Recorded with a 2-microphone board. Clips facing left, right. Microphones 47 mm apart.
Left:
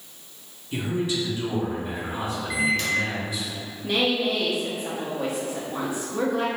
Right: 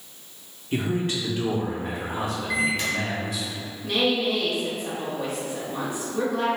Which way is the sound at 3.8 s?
10° left (ahead or behind).